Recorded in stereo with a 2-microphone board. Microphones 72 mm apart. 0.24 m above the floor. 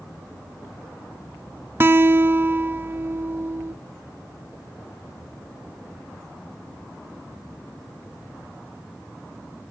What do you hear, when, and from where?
1.8 s a guitar: 30° right (ahead or behind), 0.5 m